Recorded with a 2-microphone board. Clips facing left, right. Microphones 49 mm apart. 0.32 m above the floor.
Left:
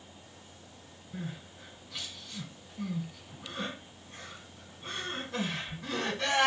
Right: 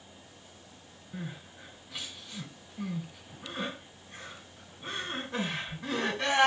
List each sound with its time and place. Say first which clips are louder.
1.1 s crying: even; 10° right (ahead or behind), 1.3 m